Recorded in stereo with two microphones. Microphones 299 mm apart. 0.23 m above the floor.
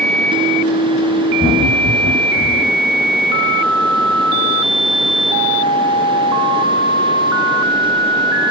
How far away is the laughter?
About 9 m.